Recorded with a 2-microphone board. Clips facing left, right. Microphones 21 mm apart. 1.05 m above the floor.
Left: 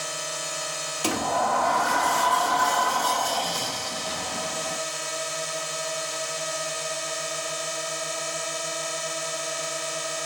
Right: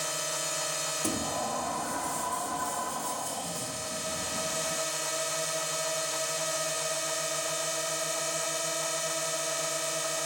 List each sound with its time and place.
0.0 s a drone: 15° left (ahead or behind)
1.0 s a sliding door: 70° left (ahead or behind)